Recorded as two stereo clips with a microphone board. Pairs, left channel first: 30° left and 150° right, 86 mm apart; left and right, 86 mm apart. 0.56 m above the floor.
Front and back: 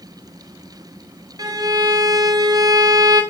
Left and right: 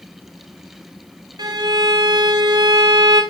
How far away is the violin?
About 2 m.